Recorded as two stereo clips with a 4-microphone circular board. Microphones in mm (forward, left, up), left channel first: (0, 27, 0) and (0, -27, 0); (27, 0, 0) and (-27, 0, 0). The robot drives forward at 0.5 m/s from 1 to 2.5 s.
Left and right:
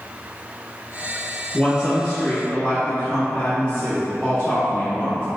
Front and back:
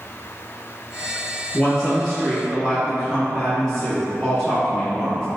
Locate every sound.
1.5 s a woman speaking: 55° left, 1.8 m; by 5.3 s 80° left, 1.7 m